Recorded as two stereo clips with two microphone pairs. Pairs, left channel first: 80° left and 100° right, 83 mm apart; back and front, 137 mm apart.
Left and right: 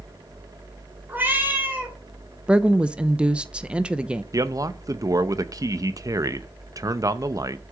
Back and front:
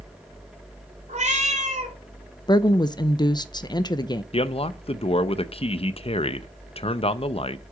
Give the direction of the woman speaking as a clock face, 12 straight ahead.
5 o'clock.